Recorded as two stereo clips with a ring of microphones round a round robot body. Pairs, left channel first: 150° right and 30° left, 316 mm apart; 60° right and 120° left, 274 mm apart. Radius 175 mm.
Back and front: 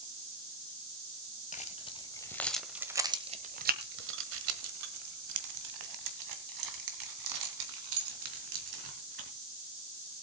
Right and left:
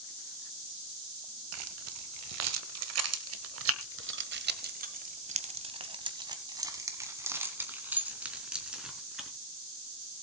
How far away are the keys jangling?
About 1.5 m.